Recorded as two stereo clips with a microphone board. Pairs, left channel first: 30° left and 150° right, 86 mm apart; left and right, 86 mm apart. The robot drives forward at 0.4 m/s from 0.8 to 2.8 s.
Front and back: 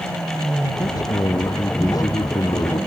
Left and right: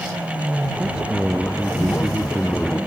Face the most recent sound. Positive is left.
turn(degrees=-10)